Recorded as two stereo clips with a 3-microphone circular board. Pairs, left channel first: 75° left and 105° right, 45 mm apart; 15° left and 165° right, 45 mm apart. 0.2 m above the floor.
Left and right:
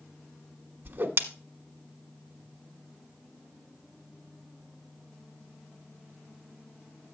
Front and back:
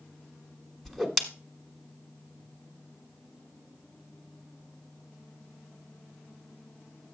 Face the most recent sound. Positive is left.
turn(degrees=-70)